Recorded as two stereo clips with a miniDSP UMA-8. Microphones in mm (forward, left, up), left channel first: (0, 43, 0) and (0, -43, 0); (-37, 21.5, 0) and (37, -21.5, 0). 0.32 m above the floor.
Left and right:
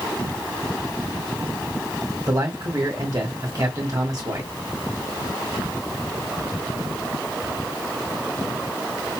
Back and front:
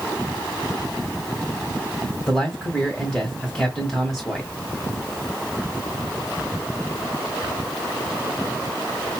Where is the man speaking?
125° right, 2 m.